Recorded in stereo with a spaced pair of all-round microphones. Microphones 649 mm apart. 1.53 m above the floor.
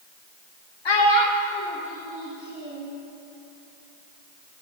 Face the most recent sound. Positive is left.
turn(degrees=-20)  # may be behind; listen again after turning